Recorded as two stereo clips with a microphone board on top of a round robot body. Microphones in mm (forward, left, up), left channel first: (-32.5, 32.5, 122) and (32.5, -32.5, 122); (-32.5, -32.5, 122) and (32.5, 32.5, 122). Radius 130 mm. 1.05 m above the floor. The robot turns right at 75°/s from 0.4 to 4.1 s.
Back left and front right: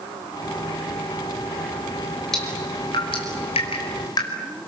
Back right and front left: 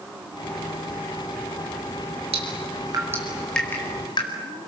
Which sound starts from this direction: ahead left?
Dripping, at 2.3 s.